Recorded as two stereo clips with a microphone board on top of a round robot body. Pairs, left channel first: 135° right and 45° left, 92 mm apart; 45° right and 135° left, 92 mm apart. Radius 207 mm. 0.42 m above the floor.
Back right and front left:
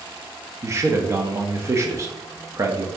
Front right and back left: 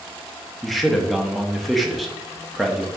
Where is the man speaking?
45° left, 1.1 m.